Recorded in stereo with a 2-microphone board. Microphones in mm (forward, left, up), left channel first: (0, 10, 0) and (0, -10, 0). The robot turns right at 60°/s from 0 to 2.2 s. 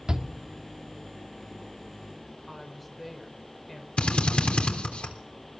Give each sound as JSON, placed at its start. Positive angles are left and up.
{"t": 0.1, "sound": "a shout", "side_deg": -40, "distance_m": 2.0}
{"t": 2.5, "sound": "a woman speaking", "side_deg": 10, "distance_m": 4.0}
{"t": 4.0, "sound": "a drill", "side_deg": 65, "distance_m": 3.5}